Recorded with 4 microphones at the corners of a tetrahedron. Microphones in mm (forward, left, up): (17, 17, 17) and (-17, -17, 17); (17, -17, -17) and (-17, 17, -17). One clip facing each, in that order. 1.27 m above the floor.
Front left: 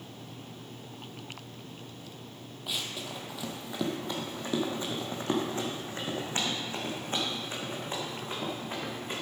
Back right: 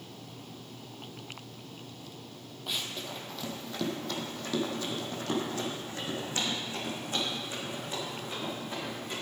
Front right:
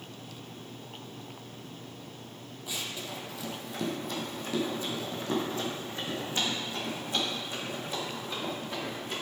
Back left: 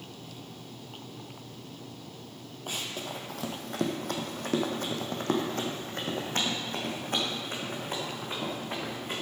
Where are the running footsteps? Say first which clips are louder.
Even, back left 2 dB; 135° left, 1.8 m; by 9.2 s 95° left, 5 m.